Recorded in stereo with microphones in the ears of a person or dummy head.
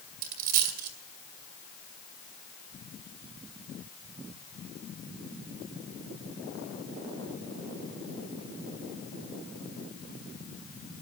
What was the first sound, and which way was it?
A dropped coin, 50° right (ahead or behind).